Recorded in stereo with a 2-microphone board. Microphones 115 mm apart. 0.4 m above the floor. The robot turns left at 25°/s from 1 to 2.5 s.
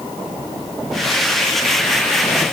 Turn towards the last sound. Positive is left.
No sound to turn to.